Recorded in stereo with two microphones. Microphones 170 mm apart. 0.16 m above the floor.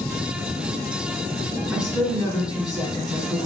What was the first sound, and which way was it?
A woman speaking, 25° left (ahead or behind).